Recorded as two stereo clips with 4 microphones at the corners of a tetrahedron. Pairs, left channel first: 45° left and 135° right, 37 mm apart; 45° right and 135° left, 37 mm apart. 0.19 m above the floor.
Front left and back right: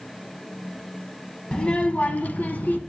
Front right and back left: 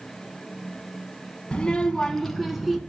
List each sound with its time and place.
1.5 s a child speaking: straight ahead, 0.7 m; by 2.8 s 55° left, 1.0 m